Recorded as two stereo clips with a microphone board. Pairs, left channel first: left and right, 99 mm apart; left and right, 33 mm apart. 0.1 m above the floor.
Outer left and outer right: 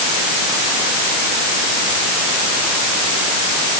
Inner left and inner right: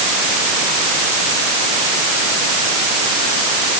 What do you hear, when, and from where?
Only background noise.